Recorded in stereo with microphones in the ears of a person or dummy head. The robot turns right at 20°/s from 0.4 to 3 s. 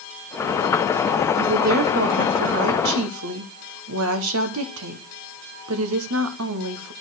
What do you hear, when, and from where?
1.3 s a woman speaking: 135° right, 1.4 m; by 6.9 s 100° right, 1.4 m